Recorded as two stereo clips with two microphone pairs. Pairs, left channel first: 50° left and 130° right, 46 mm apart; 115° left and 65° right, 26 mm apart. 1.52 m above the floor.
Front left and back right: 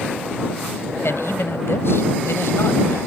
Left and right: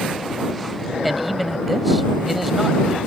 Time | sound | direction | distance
1.0 | a man speaking | 25° left | ?